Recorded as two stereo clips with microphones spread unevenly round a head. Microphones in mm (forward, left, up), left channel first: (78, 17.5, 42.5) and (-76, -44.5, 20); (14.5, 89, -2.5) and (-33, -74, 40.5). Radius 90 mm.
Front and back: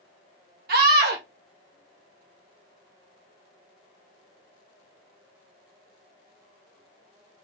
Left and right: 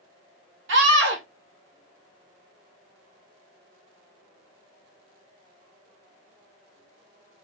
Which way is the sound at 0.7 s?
125° right.